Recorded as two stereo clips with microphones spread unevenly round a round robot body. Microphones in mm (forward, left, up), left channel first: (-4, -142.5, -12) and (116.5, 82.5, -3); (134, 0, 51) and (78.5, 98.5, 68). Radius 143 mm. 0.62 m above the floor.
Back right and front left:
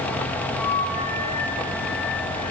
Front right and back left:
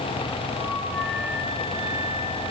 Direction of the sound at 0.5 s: 145° right.